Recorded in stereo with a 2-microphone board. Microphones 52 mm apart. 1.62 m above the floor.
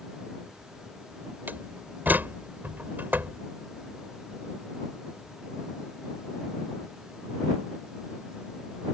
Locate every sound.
1.5 s a door slam: 35° right (ahead or behind)